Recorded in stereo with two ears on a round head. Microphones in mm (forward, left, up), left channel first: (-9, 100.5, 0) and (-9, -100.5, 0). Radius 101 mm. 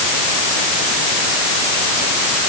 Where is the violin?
I don't hear a violin.